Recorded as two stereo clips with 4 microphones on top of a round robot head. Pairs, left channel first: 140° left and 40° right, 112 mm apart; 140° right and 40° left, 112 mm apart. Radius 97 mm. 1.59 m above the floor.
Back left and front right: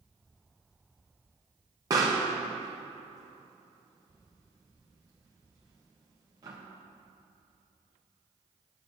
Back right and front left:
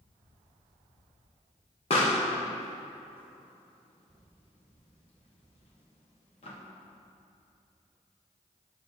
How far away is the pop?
About 1.1 m.